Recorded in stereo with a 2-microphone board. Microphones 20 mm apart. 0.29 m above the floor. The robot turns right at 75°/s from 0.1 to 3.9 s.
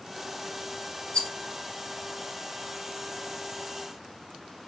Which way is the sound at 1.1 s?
65° left (ahead or behind).